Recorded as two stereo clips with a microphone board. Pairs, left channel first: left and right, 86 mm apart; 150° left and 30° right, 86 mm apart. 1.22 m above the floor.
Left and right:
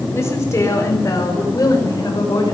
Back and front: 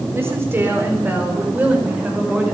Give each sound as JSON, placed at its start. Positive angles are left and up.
{"t": 0.1, "sound": "a woman speaking", "azimuth_deg": 30, "distance_m": 4.0}